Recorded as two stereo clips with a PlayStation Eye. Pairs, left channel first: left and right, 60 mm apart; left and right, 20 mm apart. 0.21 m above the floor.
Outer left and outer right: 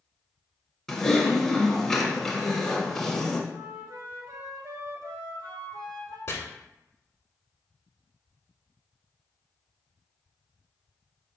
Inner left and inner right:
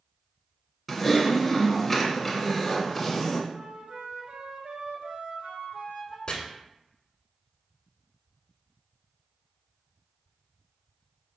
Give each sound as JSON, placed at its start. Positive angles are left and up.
{"t": 0.9, "sound": "typing on a keyboard", "side_deg": 5, "distance_m": 0.9}
{"t": 3.5, "sound": "a flute", "side_deg": -70, "distance_m": 1.0}
{"t": 6.3, "sound": "chopping", "side_deg": 50, "distance_m": 1.1}